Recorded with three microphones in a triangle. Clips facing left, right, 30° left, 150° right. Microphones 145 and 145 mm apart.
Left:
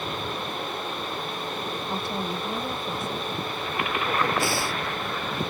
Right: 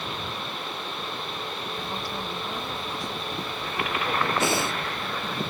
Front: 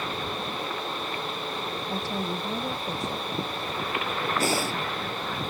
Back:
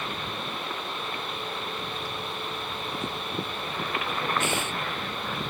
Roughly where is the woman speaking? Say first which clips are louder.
Left 3 dB, front 5 dB; ahead left.